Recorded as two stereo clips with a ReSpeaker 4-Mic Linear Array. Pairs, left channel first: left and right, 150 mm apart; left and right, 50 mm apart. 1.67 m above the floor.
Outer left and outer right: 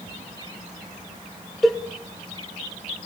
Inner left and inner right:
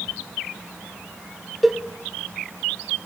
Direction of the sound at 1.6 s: Centre (ahead or behind).